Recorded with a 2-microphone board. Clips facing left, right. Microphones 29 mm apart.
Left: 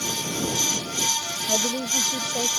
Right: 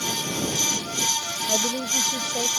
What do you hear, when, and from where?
1.5 s a woman speaking: 10° right (ahead or behind)